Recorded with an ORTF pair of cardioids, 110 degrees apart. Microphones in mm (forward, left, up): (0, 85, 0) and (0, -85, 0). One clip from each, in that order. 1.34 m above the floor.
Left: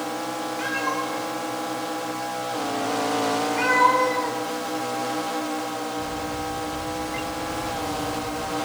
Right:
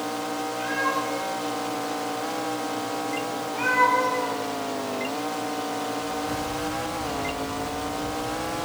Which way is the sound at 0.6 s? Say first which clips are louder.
Right 1 dB; 60° left.